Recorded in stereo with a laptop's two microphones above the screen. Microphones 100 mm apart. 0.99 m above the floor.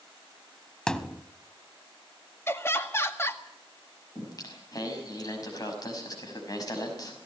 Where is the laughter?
25° left (ahead or behind), 2 m.